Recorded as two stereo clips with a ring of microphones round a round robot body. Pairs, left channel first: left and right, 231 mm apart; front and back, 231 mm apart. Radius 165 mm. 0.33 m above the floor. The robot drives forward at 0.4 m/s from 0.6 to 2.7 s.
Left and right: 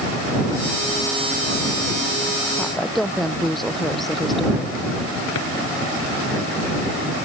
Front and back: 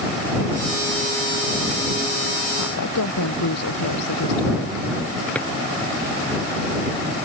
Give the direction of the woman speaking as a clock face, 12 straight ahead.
12 o'clock.